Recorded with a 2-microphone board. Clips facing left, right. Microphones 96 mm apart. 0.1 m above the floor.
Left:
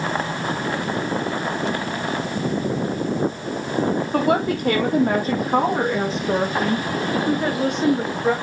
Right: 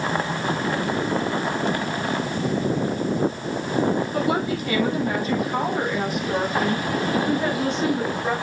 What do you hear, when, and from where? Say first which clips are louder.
4.1 s a woman speaking: left 3 dB; 60° left (ahead or behind), 4 m; by 8.3 s 15° left (ahead or behind), 6.5 m